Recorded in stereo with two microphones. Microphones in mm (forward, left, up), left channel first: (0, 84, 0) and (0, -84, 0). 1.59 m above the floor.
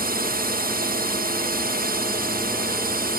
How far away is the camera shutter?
I don't hear a camera shutter.